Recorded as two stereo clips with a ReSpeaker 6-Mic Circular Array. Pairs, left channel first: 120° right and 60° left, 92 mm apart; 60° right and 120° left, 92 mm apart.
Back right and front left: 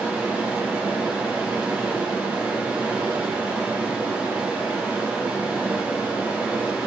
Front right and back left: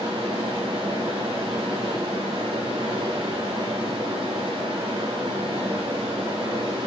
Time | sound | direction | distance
0.0 | running water | 130° left | 7.5 m